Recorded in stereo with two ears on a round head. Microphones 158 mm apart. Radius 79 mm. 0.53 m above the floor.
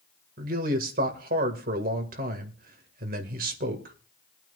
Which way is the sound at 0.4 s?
50° right (ahead or behind).